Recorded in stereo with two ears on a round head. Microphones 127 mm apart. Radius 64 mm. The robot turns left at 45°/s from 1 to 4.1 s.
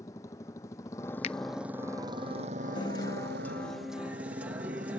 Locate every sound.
0.0 s a motorcycle: 20° left; by 5.0 s 120° right
1.2 s a finger snap: 45° left (ahead or behind)
2.8 s a guitar: 50° left; by 5.0 s 15° right